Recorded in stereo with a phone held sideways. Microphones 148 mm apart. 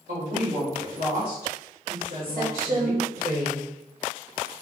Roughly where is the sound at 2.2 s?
Right.